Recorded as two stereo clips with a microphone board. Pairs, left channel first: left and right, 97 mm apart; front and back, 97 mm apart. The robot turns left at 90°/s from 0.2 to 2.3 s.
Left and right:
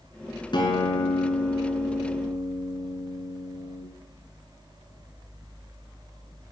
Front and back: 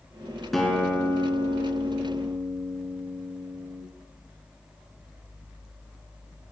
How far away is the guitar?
About 2.5 m.